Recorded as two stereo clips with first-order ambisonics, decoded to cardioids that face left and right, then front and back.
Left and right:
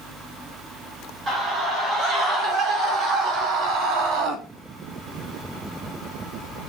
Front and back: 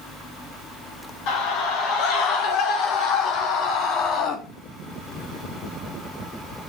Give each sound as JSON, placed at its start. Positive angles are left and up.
{"t": 1.3, "sound": "a scream", "azimuth_deg": -30, "distance_m": 6.0}